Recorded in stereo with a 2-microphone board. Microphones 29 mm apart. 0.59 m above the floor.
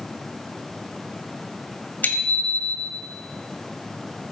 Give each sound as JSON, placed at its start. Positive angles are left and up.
{"t": 2.0, "sound": "a bicycle bell", "side_deg": 80, "distance_m": 2.0}